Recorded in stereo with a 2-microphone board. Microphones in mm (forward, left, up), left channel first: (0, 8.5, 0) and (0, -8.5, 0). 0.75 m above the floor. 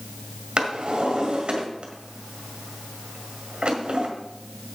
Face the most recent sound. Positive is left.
turn(degrees=-75)  # may be behind; listen again after turning